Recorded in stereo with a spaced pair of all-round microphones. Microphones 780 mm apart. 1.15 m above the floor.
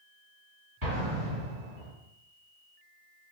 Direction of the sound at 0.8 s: 25° right (ahead or behind).